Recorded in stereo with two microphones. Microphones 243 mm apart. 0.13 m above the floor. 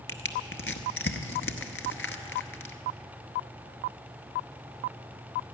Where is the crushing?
55° left (ahead or behind), 0.9 m.